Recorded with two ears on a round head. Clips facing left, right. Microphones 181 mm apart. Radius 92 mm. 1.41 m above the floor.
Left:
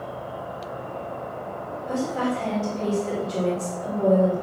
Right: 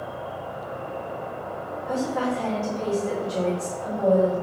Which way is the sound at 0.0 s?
20° right (ahead or behind).